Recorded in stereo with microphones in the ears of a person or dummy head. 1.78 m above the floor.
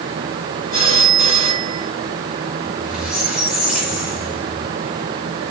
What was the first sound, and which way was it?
A phone ringing, 45° right (ahead or behind).